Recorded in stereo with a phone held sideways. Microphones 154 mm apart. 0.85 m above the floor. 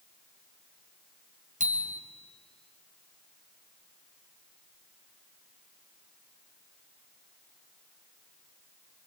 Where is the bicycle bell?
55° right (ahead or behind), 3 m.